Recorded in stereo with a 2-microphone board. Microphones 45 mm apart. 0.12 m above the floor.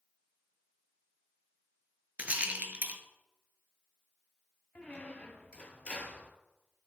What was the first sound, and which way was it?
A rattle, 35° right (ahead or behind).